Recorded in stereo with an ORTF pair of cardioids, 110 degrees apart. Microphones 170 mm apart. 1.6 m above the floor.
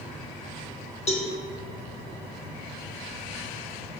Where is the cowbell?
40° left, 2 m.